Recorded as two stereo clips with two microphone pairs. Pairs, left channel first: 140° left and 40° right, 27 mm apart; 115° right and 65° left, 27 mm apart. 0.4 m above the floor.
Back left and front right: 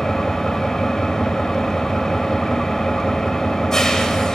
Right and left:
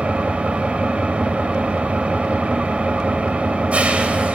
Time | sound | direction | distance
0.0 | an engine running | 75° left | 1.8 m